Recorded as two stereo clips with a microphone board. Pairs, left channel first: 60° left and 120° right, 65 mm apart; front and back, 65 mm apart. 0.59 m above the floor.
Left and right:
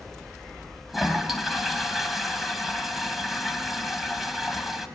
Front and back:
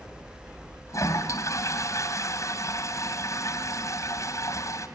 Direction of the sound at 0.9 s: 35° right.